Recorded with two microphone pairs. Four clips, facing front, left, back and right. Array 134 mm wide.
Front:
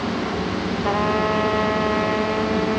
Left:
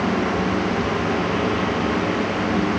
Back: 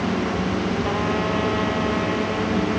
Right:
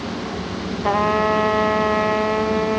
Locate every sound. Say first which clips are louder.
0.8 s a trumpet: right 4 dB, front 3 dB; 80° right